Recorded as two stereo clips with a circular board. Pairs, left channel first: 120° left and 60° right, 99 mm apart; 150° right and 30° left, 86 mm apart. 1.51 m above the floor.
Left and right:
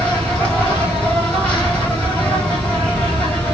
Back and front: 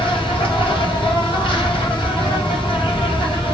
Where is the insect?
155° right, 1.9 m.